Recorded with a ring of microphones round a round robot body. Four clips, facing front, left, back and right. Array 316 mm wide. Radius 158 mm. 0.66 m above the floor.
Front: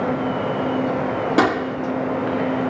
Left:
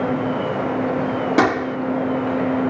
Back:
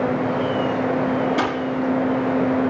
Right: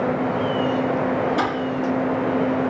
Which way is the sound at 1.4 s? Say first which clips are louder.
Left 5 dB, front 3 dB; 50° left.